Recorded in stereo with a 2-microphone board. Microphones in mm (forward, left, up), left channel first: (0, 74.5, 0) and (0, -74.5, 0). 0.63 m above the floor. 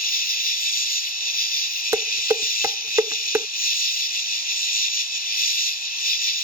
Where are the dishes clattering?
20° right (ahead or behind).